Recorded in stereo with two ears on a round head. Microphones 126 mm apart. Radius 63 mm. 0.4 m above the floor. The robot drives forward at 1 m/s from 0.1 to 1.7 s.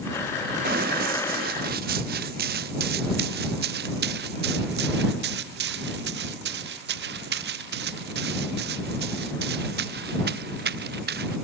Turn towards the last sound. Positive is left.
turn(degrees=-80)